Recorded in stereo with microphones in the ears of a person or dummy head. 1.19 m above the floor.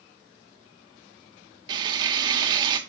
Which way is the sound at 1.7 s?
25° right (ahead or behind).